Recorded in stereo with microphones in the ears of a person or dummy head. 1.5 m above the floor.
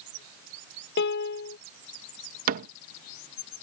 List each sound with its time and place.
1.0 s a piano: 65° left (ahead or behind)
2.5 s a cupboard door: 50° right (ahead or behind)